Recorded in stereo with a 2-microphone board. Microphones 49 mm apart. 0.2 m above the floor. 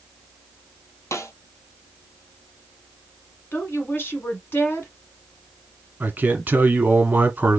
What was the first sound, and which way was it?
A snare drum, 85° left.